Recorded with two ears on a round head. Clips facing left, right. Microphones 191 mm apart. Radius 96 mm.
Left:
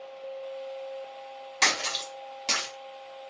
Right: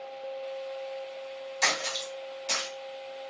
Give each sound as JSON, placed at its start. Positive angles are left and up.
{"t": 1.6, "sound": "a splash", "side_deg": 75, "distance_m": 0.9}